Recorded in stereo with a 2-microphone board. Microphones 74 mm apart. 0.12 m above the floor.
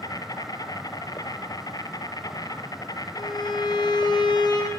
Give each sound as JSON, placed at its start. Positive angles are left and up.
{"t": 0.0, "sound": "an insect", "side_deg": 55, "distance_m": 2.5}
{"t": 3.1, "sound": "a violin", "side_deg": 75, "distance_m": 5.0}